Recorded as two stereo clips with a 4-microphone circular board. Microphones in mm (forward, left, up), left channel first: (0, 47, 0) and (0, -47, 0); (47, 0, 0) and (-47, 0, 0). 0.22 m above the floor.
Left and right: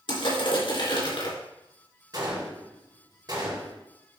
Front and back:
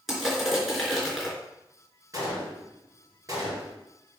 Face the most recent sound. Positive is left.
turn(degrees=-130)